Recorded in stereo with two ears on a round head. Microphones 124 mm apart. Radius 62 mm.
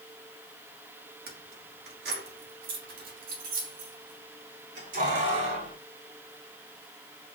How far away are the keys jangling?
About 1.8 m.